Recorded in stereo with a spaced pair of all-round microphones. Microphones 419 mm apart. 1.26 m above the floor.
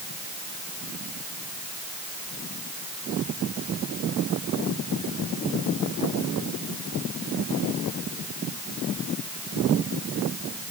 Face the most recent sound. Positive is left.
No sound to turn to.